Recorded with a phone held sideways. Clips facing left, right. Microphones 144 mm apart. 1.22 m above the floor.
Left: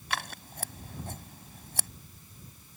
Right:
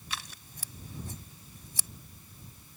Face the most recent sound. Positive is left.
turn(degrees=70)  # may be behind; listen again after turning